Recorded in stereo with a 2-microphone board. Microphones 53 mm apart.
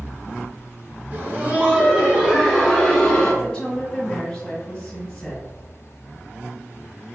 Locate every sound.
1.1 s laughter: 40° right (ahead or behind), 1.8 m; by 3.3 s 20° left (ahead or behind), 1.6 m
3.4 s a woman speaking: 20° left (ahead or behind), 1.8 m